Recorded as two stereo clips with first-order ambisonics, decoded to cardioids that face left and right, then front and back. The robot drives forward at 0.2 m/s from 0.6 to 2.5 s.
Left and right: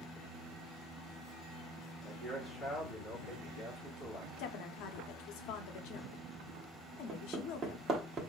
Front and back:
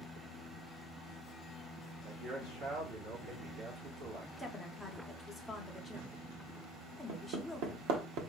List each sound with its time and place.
2.0 s a man speaking: 155° left, 2 m
4.4 s a woman speaking: 90° left, 0.7 m
7.1 s hammering: 160° right, 1.0 m